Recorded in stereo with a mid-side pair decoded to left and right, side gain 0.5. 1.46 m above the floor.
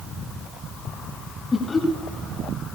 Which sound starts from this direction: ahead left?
Laughter, at 1.5 s.